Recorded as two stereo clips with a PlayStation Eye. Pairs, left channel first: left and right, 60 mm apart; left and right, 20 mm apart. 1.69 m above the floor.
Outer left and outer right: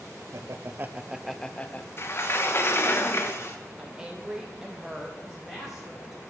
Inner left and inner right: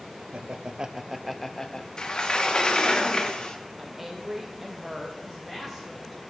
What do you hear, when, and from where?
0.3 s laughter: 60° right (ahead or behind), 0.6 m; by 1.9 s 25° left (ahead or behind), 0.7 m
2.0 s a sliding door: 45° left (ahead or behind), 0.9 m
3.8 s a woman speaking: 10° right (ahead or behind), 0.8 m
5.2 s a woman speaking: 5° right (ahead or behind), 5.5 m